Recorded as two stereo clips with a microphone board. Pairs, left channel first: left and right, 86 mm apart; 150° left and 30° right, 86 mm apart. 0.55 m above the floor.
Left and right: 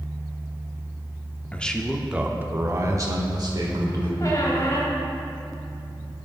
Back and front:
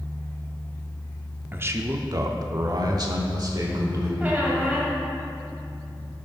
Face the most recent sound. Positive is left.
turn(degrees=40)